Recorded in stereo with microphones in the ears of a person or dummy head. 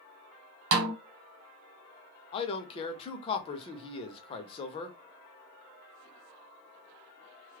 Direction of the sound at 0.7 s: 75° right (ahead or behind).